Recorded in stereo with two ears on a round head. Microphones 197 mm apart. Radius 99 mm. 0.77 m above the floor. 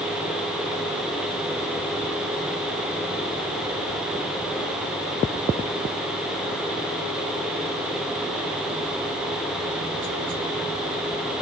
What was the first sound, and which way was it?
Only background noise.